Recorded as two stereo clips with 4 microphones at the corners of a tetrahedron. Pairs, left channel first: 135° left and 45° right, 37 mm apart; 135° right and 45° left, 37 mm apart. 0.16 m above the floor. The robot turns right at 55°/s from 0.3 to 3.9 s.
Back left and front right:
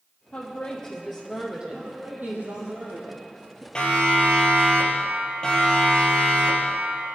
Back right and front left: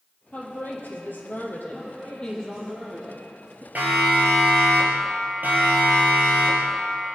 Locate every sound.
0.3 s a woman speaking: 175° right, 4.5 m; by 2.7 s 45° right, 4.5 m
1.7 s a woman speaking: 65° right, 3.5 m; by 3.6 s 40° left, 3.5 m
3.8 s a siren: 70° left, 4 m; by 6.8 s 65° left, 5.5 m